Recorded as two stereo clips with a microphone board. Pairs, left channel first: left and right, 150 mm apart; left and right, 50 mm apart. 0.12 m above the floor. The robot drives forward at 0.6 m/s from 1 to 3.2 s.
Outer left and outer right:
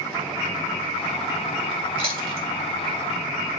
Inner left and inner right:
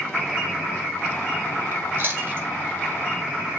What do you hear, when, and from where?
1.7 s chewing: 35° right (ahead or behind), 4 m; by 2.5 s 40° right (ahead or behind), 3.5 m